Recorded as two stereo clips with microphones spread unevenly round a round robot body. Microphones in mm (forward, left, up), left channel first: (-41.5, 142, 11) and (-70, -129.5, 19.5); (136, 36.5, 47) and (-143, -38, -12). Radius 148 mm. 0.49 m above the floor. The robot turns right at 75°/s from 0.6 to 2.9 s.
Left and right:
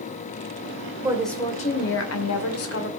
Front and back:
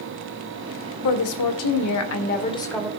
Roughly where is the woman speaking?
Ahead.